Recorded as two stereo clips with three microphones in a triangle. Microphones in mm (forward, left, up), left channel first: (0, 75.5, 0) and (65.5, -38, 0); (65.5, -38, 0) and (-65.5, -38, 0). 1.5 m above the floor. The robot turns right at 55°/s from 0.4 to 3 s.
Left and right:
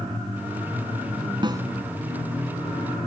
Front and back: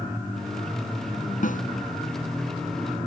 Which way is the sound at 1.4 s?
5° right.